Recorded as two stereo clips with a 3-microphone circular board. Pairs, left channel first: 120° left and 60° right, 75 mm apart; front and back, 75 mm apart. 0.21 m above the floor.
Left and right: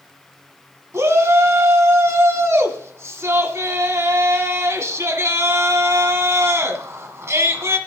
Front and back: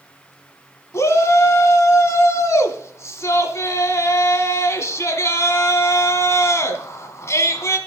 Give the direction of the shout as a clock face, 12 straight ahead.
1 o'clock.